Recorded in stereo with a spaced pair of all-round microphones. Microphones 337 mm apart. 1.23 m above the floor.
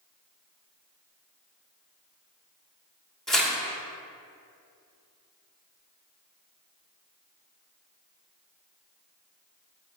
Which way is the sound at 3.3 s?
Centre (ahead or behind).